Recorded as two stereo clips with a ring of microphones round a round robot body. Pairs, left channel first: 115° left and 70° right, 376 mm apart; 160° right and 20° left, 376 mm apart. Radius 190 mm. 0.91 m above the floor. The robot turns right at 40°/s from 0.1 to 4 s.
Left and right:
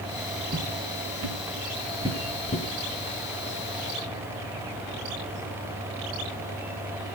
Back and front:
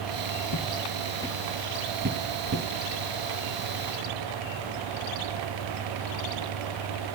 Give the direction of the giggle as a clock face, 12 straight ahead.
No giggle in this recording.